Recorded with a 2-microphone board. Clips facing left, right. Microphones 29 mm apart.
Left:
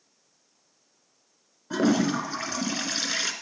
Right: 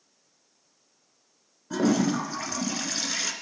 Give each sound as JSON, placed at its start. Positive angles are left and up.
{"t": 1.7, "sound": "a toilet flushing", "side_deg": 20, "distance_m": 1.1}